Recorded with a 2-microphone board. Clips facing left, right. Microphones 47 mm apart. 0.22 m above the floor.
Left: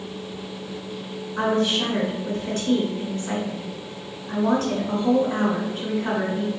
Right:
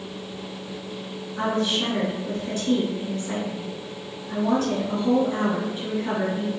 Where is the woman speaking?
55° left (ahead or behind), 1.8 m.